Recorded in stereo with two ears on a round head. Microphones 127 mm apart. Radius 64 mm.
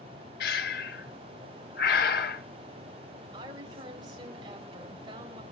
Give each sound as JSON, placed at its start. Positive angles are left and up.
{"t": 0.4, "sound": "breathing", "side_deg": 80, "distance_m": 1.1}
{"t": 3.3, "sound": "a woman speaking", "side_deg": -30, "distance_m": 4.0}